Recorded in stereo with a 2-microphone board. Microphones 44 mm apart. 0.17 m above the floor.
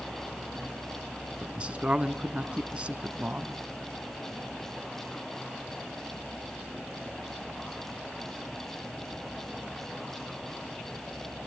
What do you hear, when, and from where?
1.4 s a man speaking: 25° right (ahead or behind), 1.2 m